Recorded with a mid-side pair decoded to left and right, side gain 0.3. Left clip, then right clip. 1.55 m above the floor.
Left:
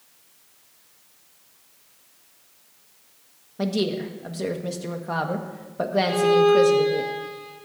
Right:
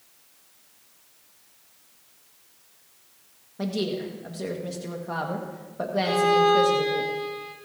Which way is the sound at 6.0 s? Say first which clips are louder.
Left 1 dB; 65° right.